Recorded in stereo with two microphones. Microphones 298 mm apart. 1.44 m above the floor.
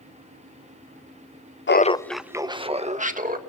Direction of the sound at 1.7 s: 40° left (ahead or behind).